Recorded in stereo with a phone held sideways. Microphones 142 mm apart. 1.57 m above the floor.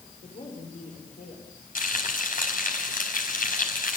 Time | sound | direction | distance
0.2 | a woman speaking | 65° left (ahead or behind) | 5.5 m
1.8 | frying | 75° left (ahead or behind) | 5 m